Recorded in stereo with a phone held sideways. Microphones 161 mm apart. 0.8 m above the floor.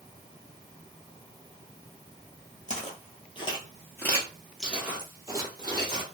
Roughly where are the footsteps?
Left.